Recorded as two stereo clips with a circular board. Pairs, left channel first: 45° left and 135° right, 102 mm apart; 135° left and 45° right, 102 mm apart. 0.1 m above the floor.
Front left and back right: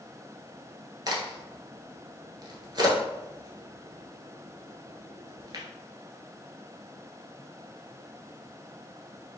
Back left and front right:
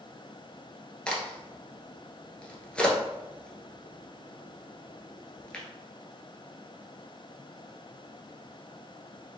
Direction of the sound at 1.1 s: 150° right.